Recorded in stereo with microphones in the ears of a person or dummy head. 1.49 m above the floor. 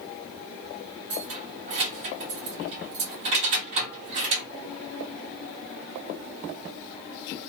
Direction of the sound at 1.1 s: 40° right (ahead or behind).